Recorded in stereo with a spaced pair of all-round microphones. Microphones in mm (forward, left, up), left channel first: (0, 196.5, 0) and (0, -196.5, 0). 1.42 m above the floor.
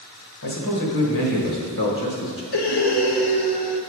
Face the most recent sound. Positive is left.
turn(degrees=85)